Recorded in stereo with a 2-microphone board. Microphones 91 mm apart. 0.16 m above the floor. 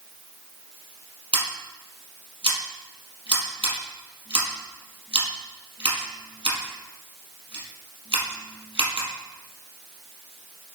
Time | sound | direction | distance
1.3 | scissors | 70° right (ahead or behind) | 4.5 m